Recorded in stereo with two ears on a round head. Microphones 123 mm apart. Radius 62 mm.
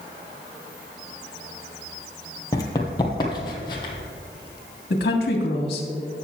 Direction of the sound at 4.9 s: 80° left.